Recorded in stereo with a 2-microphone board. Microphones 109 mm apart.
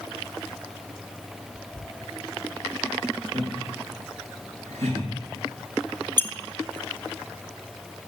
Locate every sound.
3.3 s laughter: 80° right, 5 m
6.2 s a squeak: 20° left (ahead or behind), 0.5 m